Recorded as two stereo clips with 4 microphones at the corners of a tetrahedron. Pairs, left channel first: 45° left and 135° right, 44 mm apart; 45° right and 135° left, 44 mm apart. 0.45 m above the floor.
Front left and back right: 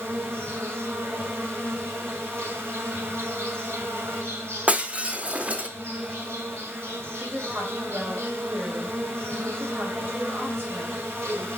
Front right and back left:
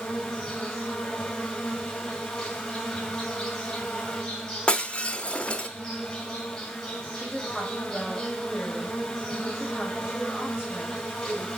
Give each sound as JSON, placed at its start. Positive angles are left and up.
{"t": 0.0, "sound": "an insect", "azimuth_deg": -120, "distance_m": 1.6}
{"t": 4.7, "sound": "breaking glass", "azimuth_deg": -95, "distance_m": 0.6}
{"t": 7.1, "sound": "a woman speaking", "azimuth_deg": -135, "distance_m": 1.8}